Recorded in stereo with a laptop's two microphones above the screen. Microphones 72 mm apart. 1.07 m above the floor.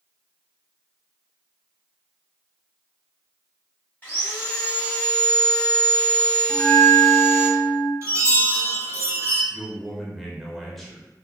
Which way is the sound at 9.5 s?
Centre (ahead or behind).